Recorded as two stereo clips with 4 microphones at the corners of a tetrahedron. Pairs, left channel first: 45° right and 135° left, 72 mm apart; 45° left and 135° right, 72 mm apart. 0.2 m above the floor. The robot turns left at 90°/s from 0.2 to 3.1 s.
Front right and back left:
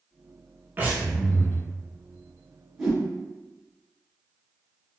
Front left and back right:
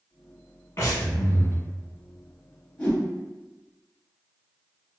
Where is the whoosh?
65° left, 1.2 m; by 3.0 s 40° left, 1.2 m.